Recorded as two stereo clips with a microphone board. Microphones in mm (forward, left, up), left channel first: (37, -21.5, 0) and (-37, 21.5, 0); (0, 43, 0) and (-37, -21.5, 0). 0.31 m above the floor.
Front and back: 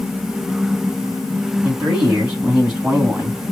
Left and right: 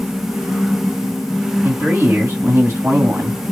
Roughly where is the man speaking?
Behind right.